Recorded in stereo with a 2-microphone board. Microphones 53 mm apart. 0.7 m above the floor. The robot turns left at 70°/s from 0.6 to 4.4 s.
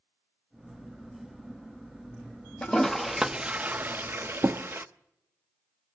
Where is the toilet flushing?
20° left (ahead or behind), 0.6 m; by 4.9 s 45° right (ahead or behind), 0.6 m.